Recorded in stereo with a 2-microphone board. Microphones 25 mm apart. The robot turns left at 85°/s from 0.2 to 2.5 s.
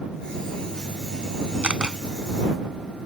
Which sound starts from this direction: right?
A camera shutter, at 1.6 s.